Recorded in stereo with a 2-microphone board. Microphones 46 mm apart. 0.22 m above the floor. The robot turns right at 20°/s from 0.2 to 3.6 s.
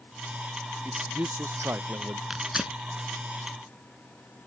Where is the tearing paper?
10° right (ahead or behind); by 2.8 s 20° right (ahead or behind).